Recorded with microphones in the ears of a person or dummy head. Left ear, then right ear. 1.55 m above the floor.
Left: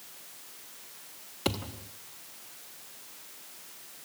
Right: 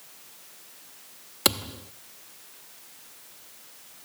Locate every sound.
1.4 s a thud: 50° right (ahead or behind), 1.3 m